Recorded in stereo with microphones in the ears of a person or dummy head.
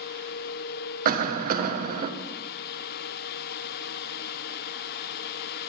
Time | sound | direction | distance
1.1 | a cough | 45° right (ahead or behind) | 0.7 m